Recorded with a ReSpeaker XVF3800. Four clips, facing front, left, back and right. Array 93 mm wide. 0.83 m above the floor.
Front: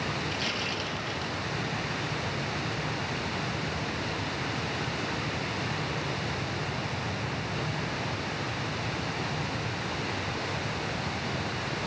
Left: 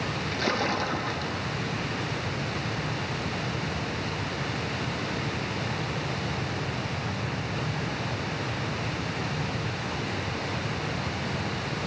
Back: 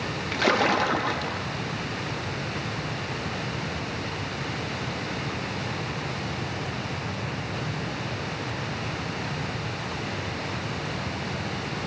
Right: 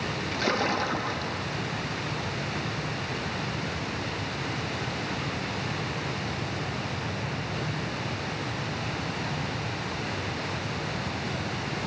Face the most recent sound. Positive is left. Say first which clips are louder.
# right 1 dB, back 11 dB
turn(degrees=180)